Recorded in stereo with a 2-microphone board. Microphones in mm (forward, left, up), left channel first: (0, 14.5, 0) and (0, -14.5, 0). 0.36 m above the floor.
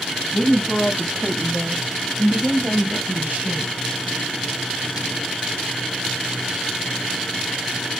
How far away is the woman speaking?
About 2 m.